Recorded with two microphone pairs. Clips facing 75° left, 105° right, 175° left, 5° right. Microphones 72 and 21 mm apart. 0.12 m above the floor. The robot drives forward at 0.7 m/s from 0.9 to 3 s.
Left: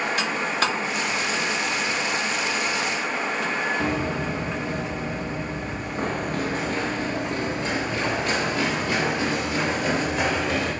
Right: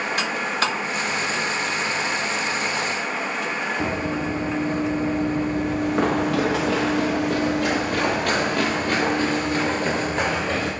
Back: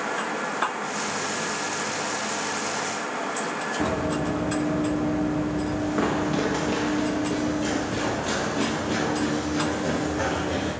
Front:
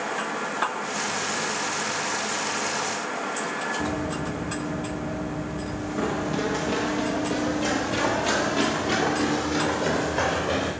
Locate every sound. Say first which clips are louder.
3.8 s running footsteps: right 1 dB, back 3 dB; 170° right, 2 m; by 10.7 s 50° right, 3.5 m